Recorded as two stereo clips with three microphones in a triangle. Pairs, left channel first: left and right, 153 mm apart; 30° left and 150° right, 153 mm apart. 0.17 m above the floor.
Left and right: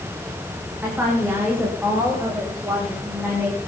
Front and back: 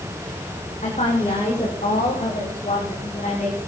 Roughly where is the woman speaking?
Ahead.